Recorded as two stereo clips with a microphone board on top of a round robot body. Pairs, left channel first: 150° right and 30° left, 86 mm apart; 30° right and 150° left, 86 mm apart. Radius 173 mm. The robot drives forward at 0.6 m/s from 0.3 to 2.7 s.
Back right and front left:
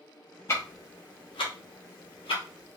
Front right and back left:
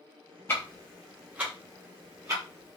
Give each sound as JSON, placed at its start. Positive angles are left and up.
{"t": 0.5, "sound": "ticking", "azimuth_deg": -90, "distance_m": 0.5}